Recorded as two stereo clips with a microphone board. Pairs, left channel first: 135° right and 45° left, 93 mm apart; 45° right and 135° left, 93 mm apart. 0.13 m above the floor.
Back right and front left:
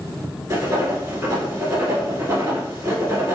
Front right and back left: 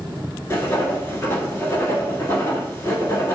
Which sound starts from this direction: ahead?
Writing, at 0.5 s.